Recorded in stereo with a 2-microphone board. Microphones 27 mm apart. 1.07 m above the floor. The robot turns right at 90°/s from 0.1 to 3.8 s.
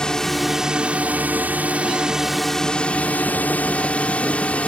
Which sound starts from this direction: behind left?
A drone, at 0.0 s.